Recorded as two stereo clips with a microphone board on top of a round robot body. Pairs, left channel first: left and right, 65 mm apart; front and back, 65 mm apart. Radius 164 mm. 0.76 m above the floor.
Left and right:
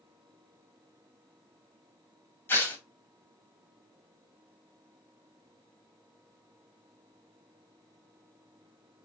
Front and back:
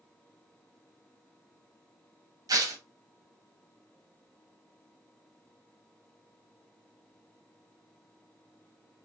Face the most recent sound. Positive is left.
turn(degrees=150)